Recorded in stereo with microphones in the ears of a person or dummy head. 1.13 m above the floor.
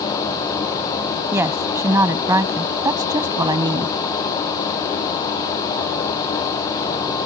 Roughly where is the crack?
No crack in this recording.